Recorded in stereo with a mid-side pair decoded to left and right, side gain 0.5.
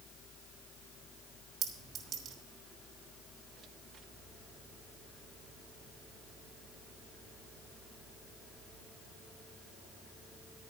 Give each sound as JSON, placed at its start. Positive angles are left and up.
{"t": 1.6, "sound": "a clink", "azimuth_deg": -65, "distance_m": 4.0}